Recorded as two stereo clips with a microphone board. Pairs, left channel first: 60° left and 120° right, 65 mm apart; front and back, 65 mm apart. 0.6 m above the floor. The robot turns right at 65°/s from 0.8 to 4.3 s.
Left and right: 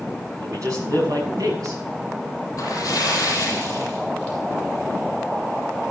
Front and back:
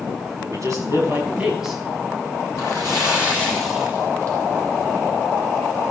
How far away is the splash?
About 7 m.